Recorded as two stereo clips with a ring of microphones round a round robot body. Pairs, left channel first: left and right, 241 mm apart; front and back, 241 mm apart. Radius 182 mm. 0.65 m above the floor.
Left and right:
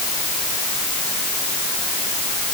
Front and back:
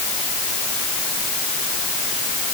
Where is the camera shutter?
I don't hear a camera shutter.